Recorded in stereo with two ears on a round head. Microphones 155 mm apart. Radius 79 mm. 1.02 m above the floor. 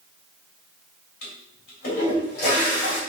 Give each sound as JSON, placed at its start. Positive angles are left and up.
{"t": 1.2, "sound": "a toilet flushing", "side_deg": 65, "distance_m": 3.0}